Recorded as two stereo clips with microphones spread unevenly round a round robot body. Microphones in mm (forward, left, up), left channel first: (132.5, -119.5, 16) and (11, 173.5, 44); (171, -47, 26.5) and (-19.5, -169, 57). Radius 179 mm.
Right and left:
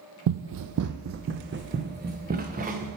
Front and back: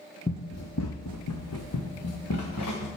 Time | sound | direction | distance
0.3 | running footsteps | 110° left | 0.5 m